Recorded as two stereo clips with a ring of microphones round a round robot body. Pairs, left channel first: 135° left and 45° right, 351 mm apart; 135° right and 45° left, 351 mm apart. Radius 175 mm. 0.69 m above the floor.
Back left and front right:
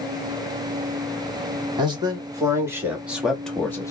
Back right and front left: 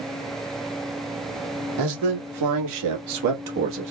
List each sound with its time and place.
1.8 s a man speaking: 30° left, 2 m; by 3.9 s 60° left, 1.1 m